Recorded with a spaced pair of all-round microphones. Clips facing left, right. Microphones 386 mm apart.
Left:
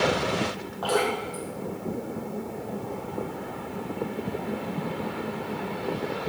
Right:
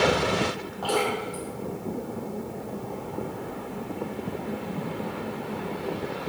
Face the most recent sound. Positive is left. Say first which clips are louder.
# left 1 dB
turn(degrees=-40)  # may be behind; listen again after turning